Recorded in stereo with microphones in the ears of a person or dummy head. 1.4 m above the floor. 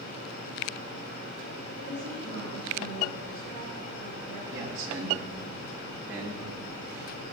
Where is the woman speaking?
40° right (ahead or behind), 5 m.